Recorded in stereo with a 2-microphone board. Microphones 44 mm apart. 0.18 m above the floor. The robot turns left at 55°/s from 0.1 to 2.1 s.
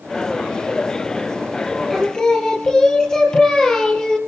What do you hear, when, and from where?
1.9 s singing: 5° left (ahead or behind), 2 m; by 4.2 s 15° left (ahead or behind), 2 m